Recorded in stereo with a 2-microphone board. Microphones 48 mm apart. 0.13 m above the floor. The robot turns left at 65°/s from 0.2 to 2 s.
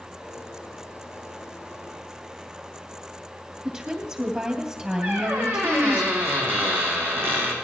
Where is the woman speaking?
20° right (ahead or behind), 2.5 m.